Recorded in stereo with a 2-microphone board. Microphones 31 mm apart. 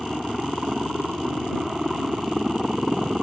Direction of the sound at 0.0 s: 10° right (ahead or behind).